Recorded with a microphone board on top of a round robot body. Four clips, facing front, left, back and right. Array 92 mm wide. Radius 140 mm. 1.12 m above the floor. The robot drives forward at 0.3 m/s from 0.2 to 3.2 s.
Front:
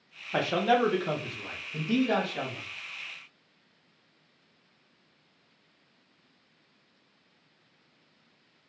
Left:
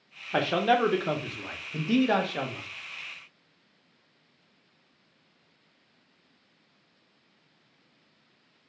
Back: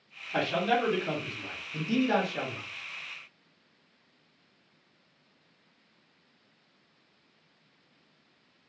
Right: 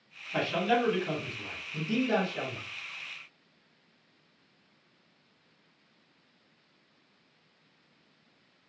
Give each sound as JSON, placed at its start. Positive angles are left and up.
{"t": 0.3, "sound": "a man speaking", "azimuth_deg": 70, "distance_m": 1.0}